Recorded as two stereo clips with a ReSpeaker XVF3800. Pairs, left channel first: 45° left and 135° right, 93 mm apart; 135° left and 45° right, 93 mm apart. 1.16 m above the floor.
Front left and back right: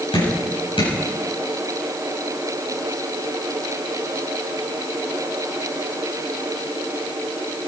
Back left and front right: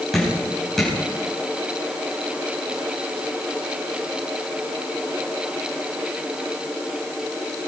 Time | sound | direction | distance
0.1 | dripping | 50° left | 8.5 m